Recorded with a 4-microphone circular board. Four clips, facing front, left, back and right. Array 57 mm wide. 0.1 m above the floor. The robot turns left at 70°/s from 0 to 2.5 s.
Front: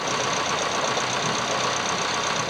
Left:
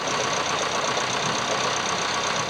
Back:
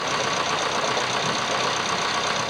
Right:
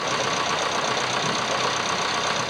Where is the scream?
I don't hear a scream.